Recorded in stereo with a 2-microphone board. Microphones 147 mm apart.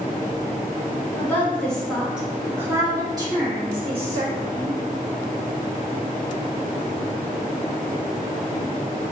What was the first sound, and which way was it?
A woman speaking, 15° left (ahead or behind).